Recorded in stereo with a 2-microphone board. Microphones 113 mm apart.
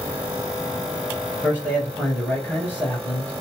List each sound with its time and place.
1.4 s a man speaking: 20° left (ahead or behind), 2 m